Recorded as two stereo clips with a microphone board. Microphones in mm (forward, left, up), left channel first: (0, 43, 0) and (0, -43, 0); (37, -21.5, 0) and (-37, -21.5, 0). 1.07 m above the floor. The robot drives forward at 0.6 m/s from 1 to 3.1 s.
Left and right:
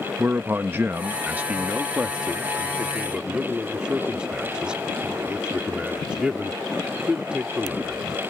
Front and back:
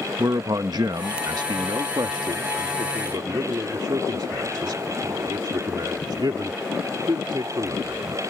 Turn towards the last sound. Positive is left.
turn(degrees=-170)